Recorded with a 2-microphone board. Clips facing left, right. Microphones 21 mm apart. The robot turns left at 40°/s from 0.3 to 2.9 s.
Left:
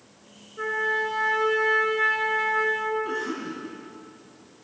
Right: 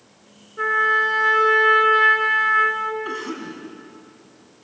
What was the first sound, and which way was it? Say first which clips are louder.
A trumpet: right 7 dB; 30° right.